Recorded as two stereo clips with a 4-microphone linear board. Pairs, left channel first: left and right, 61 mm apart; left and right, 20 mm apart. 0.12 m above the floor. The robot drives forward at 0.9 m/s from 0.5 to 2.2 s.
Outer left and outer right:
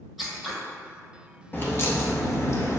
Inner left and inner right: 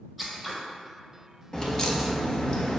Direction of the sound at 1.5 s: 35° left (ahead or behind).